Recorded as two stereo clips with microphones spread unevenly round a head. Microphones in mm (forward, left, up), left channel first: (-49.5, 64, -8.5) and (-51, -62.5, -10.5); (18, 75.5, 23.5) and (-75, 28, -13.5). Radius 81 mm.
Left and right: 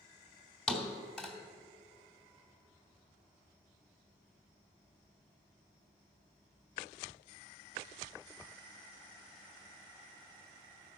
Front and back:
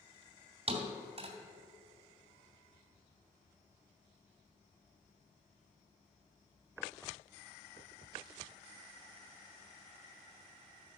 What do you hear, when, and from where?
0.7 s a thud: 170° left, 2 m